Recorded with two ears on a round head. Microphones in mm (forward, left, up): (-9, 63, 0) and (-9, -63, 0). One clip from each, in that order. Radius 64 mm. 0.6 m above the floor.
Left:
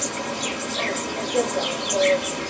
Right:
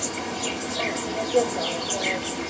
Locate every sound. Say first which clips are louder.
0.0 s an insect: left 2 dB; 50° left (ahead or behind), 1.6 m